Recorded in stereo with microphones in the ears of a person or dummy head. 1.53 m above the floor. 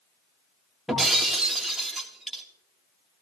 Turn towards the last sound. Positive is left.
turn(degrees=5)  # may be behind; listen again after turning